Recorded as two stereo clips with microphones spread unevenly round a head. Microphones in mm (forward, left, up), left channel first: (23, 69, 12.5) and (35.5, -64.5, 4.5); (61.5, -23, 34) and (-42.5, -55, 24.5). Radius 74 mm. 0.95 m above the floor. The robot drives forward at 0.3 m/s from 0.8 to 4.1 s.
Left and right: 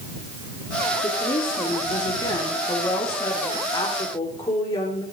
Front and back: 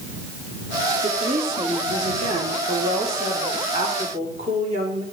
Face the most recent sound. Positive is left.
turn(degrees=165)